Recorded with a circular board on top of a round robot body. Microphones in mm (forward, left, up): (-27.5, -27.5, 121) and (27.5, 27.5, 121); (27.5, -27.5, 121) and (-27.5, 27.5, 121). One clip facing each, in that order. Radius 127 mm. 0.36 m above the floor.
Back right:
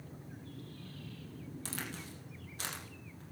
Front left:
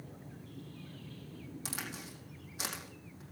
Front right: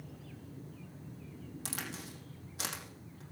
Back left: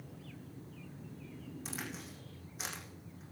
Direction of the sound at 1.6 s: 35° right.